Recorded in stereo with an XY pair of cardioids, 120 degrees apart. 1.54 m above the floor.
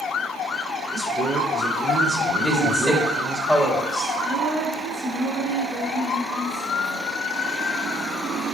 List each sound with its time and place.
0.9 s a man speaking: 50° right, 4 m
2.4 s a woman speaking: straight ahead, 3 m
4.2 s a woman speaking: 50° right, 5 m